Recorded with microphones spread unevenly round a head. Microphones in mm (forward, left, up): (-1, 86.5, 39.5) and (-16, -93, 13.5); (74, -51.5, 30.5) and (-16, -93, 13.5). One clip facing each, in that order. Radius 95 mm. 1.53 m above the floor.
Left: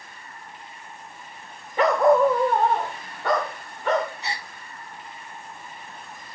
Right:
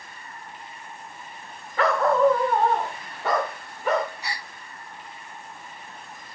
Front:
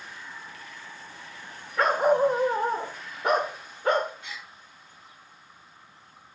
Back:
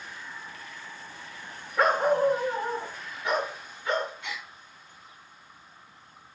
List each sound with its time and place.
1.8 s a dog barking: 105° left, 1.0 m; by 4.1 s 10° right, 2.5 m
4.2 s a gasp: 145° left, 0.7 m